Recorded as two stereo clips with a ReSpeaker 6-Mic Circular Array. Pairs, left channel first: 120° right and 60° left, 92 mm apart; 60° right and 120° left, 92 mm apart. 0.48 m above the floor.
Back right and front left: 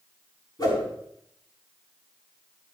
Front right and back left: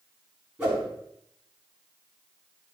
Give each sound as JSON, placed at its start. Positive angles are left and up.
{"t": 0.6, "sound": "a whoosh", "azimuth_deg": -160, "distance_m": 4.0}